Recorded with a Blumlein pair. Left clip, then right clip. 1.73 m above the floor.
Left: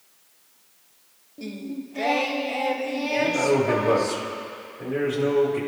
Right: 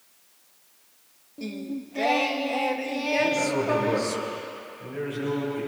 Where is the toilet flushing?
I don't hear a toilet flushing.